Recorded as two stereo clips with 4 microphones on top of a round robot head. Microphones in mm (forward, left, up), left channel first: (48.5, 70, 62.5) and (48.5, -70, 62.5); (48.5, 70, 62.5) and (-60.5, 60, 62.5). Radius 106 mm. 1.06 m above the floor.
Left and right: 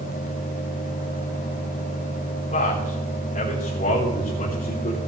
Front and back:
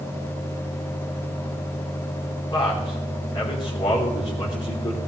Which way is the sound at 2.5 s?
55° left.